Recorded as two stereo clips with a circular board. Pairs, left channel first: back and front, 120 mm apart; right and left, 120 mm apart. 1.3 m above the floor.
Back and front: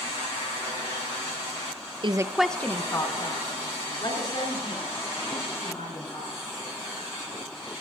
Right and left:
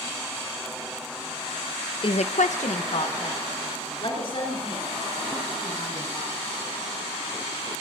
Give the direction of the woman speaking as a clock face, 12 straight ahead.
1 o'clock.